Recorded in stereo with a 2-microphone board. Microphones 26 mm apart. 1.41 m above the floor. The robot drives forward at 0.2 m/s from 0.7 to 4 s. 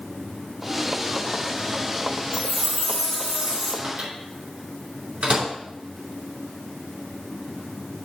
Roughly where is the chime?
Right.